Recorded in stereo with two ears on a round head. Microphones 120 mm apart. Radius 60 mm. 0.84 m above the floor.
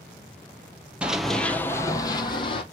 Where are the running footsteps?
10° right (ahead or behind), 0.9 m; by 2.6 s 40° left (ahead or behind), 1.4 m.